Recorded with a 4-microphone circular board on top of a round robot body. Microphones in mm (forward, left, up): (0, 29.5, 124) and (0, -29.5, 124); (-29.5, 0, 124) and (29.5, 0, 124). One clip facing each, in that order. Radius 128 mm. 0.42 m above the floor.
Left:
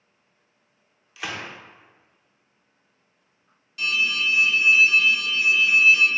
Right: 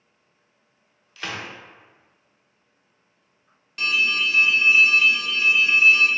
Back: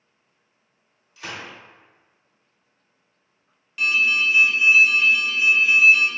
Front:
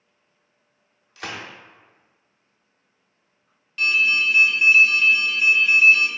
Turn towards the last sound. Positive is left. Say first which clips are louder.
# right 2 dB, even
turn(degrees=-95)